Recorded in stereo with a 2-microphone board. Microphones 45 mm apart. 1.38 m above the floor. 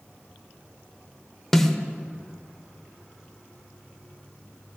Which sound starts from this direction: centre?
A snare drum, at 1.5 s.